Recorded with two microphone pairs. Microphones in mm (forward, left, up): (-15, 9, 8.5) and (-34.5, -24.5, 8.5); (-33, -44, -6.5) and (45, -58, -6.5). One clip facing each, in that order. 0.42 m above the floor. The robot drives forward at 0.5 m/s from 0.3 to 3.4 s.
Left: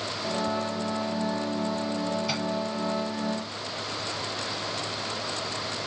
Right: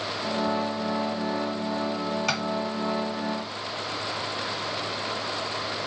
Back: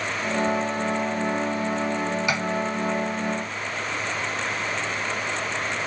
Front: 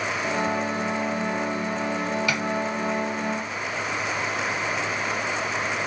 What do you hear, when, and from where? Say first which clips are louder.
2.3 s tapping: right 3 dB, back 1 dB; 120° right, 2 m; by 2.4 s 125° right, 2 m